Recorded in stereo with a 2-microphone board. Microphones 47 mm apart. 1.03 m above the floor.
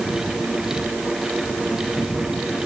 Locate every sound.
Only background noise.